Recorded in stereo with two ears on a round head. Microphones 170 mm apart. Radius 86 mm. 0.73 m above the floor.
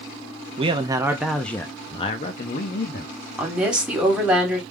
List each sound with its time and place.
0.6 s a man speaking: 30° right (ahead or behind), 0.8 m; by 3.1 s 55° left (ahead or behind), 1.1 m
3.4 s a woman speaking: 5° right (ahead or behind), 2 m